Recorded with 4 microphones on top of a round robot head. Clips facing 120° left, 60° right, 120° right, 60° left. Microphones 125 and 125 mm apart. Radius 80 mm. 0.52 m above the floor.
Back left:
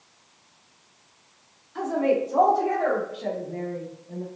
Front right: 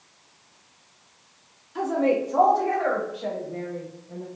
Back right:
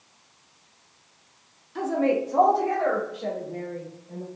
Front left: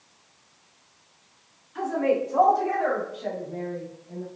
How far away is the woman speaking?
About 1.1 m.